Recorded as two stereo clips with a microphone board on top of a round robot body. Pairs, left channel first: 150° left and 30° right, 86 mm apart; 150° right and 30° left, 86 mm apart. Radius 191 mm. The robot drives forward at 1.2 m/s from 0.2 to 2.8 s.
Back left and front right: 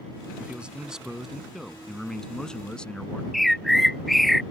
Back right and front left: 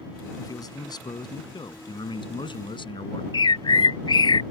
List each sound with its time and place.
0.4 s a man speaking: 105° right; by 3.2 s 130° right
3.3 s a bird: 120° right